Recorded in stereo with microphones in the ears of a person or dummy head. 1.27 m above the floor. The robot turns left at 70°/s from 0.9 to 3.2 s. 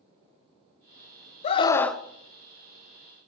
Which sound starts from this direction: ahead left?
A scream, at 1.4 s.